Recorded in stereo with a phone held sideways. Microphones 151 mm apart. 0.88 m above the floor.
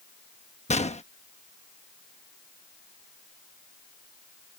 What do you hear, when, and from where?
0.7 s a gunshot: 45° left (ahead or behind)